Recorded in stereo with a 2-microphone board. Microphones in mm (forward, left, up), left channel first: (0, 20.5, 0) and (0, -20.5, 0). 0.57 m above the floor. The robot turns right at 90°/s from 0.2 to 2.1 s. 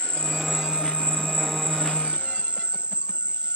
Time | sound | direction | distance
0.0 | an insect | 160° left | ?